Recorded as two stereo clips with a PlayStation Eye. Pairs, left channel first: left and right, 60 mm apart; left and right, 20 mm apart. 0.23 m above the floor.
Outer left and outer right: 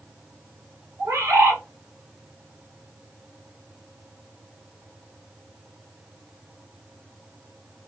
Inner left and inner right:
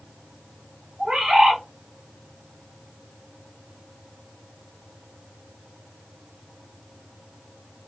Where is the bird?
50° right (ahead or behind), 1.1 m.